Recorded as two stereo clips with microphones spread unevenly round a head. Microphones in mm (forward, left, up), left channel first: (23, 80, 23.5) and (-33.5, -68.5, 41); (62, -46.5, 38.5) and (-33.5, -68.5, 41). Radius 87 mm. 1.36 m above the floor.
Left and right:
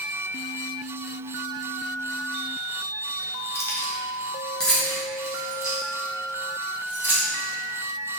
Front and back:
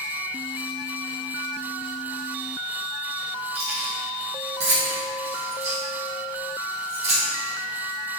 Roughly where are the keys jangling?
Behind left.